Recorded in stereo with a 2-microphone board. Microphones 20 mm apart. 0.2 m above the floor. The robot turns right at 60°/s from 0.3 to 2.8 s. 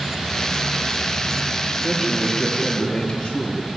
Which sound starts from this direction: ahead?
A man speaking, at 1.8 s.